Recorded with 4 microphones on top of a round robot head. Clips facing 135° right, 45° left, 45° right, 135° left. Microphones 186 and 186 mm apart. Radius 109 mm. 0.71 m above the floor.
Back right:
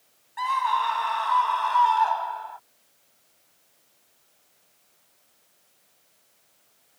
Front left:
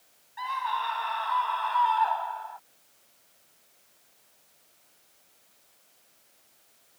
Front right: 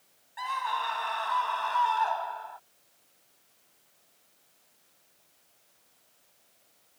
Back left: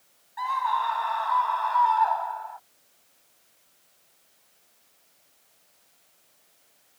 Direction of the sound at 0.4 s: 105° right.